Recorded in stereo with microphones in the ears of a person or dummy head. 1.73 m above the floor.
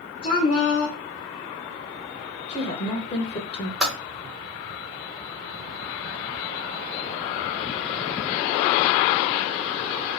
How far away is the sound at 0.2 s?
About 0.7 m.